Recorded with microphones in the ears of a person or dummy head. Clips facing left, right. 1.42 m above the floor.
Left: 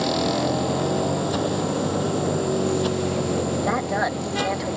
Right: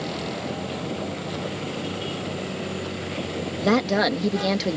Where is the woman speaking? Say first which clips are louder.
Right 3 dB; 40° right (ahead or behind).